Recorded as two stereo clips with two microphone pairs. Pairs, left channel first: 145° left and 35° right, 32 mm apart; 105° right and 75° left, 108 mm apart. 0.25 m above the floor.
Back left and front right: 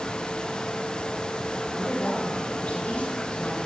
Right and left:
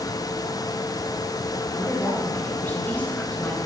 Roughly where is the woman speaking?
Behind.